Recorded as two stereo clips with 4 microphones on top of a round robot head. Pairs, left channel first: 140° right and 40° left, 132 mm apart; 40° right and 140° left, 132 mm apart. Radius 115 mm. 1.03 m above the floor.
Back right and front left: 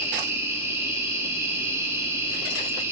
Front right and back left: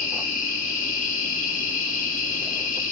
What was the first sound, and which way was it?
An insect, 30° right.